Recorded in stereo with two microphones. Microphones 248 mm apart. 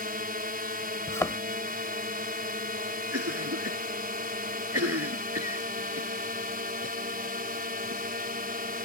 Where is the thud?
10° left (ahead or behind).